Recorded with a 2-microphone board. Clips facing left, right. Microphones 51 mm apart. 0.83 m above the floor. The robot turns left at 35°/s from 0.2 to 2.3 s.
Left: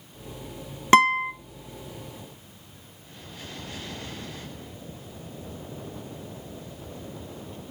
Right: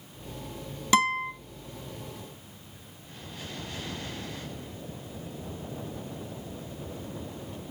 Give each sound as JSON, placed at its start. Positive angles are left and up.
{"t": 0.9, "sound": "a guitar", "side_deg": 45, "distance_m": 1.0}